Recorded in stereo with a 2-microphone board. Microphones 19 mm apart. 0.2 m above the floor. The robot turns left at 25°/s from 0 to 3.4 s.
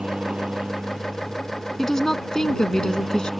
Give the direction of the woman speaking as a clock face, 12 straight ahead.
7 o'clock.